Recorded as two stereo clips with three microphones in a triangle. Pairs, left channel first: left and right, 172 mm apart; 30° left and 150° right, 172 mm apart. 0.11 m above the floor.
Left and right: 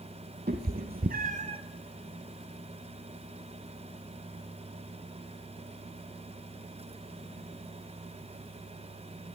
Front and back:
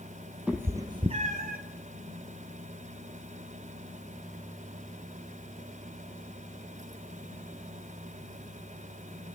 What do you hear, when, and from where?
0.5 s a cat meowing: 70° right, 1.2 m; by 1.6 s 145° right, 0.8 m